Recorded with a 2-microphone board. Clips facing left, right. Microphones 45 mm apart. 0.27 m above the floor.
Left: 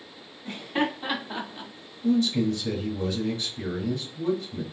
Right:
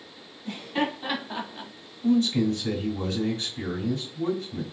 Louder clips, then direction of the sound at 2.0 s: Right 1 dB; 55° right (ahead or behind).